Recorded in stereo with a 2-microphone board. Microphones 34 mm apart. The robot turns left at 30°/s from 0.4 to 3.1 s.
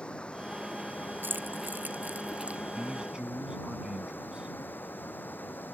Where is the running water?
150° left; by 5.8 s 70° left.